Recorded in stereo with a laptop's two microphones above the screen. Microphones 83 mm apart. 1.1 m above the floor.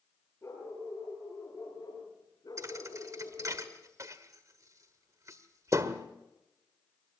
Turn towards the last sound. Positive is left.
turn(degrees=-40)  # may be behind; listen again after turning